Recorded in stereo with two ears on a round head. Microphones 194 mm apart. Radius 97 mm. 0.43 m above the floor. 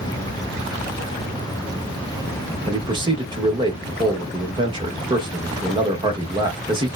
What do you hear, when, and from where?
2.7 s a man speaking: 20° right (ahead or behind), 0.8 m